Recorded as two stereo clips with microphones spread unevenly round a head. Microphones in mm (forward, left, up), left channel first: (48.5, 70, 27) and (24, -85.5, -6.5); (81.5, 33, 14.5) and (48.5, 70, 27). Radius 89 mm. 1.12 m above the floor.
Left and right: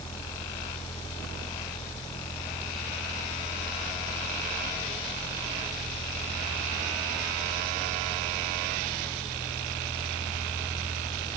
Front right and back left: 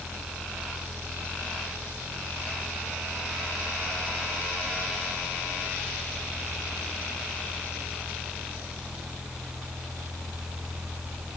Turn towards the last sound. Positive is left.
No sound to turn to.